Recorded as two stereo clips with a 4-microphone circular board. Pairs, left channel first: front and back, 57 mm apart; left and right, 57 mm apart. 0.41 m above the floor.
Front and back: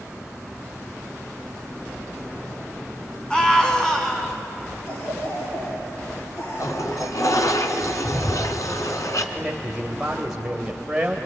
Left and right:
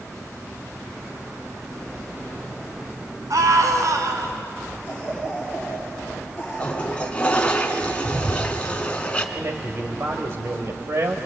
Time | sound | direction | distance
3.3 | a scream | 75° right | 4 m
4.9 | a cough | 25° left | 7 m
6.6 | a toilet flushing | 20° left | 1.8 m
9.3 | a man speaking | 105° right | 1.9 m